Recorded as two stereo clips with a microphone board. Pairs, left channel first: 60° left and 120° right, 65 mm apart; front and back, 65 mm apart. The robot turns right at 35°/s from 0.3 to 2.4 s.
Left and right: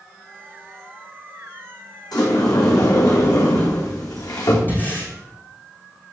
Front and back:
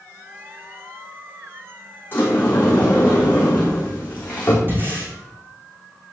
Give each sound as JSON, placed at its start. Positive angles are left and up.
{"t": 2.1, "sound": "a sliding door", "azimuth_deg": 60, "distance_m": 4.0}
{"t": 4.7, "sound": "breathing", "azimuth_deg": 120, "distance_m": 4.0}